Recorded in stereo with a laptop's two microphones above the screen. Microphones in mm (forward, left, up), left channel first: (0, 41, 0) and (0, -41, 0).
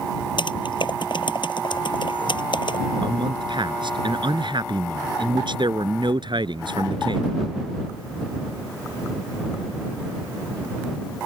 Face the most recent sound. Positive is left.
turn(degrees=-65)  # may be behind; listen again after turning